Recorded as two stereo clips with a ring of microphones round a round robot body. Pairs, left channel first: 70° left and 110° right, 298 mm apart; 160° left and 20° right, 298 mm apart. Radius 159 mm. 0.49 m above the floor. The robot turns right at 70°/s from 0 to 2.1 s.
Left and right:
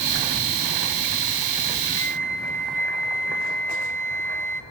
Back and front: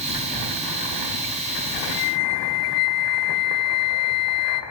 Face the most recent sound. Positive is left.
turn(degrees=155)